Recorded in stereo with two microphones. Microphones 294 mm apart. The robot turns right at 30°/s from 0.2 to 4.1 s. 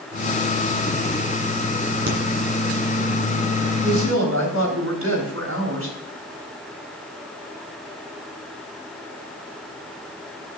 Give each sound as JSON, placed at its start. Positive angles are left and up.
{"t": 2.1, "sound": "a crack", "side_deg": -65, "distance_m": 3.0}
{"t": 3.8, "sound": "a woman speaking", "side_deg": -60, "distance_m": 3.5}